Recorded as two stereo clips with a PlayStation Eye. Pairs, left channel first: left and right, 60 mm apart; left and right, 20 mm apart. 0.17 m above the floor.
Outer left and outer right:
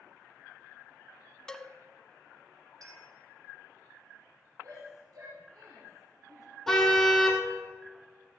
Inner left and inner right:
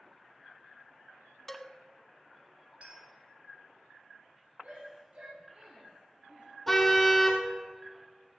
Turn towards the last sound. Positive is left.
turn(degrees=5)  # may be behind; listen again after turning